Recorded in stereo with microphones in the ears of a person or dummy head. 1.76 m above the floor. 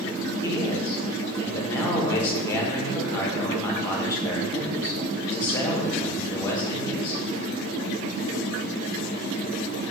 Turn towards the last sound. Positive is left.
turn(degrees=25)  # may be behind; listen again after turning